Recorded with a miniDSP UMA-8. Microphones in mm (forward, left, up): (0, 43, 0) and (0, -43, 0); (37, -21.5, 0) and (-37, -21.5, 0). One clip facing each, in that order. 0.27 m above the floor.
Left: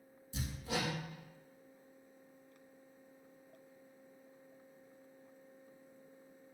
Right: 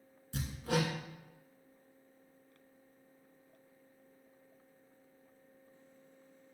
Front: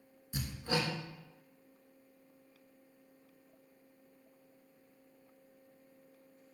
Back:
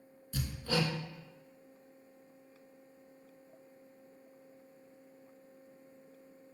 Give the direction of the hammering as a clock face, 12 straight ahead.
2 o'clock.